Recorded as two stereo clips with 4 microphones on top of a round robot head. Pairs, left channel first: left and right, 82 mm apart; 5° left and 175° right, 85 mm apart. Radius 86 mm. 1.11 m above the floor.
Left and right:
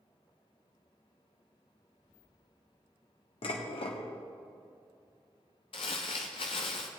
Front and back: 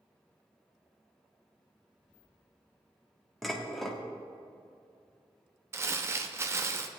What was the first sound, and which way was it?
Dishes clattering, 90° left.